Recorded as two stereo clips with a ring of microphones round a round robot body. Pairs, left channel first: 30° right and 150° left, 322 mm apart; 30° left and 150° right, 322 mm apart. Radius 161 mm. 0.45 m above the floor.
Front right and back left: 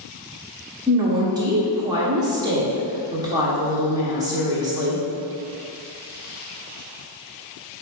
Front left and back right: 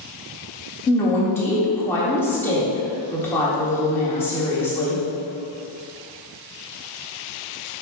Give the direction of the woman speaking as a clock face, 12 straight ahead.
9 o'clock.